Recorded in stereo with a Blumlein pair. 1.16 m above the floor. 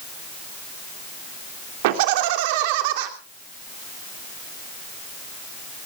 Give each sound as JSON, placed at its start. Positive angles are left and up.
{"t": 1.8, "sound": "laughter", "azimuth_deg": -50, "distance_m": 3.0}